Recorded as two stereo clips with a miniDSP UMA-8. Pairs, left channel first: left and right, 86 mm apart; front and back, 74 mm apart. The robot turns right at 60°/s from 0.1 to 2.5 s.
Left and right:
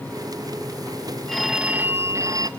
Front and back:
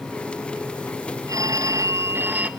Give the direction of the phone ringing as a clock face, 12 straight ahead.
6 o'clock.